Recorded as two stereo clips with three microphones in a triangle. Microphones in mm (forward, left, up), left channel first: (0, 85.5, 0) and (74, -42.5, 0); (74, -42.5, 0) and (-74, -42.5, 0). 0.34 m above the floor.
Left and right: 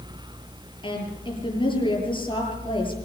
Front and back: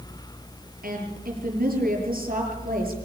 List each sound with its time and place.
0.8 s a woman speaking: 175° left, 7 m